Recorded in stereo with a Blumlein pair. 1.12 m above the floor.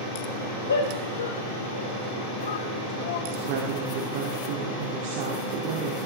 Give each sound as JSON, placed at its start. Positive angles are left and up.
{"t": 0.7, "sound": "a shout", "azimuth_deg": 70, "distance_m": 5.0}
{"t": 3.3, "sound": "a woman speaking", "azimuth_deg": -50, "distance_m": 2.5}